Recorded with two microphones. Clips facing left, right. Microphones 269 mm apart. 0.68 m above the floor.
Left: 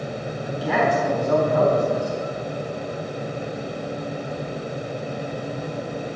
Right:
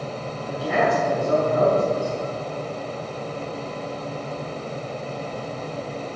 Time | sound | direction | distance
0.5 | a man speaking | 65° left (ahead or behind) | 3.5 m